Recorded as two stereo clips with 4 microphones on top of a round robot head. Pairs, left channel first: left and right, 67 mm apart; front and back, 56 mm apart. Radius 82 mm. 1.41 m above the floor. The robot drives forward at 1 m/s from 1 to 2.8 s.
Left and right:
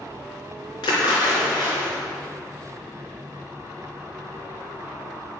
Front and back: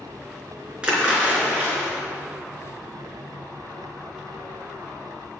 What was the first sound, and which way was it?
A splash, 110° left.